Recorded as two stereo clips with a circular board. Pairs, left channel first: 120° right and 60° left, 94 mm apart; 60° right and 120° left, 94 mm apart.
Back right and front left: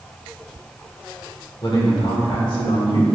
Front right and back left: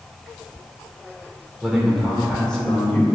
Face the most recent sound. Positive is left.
turn(degrees=-130)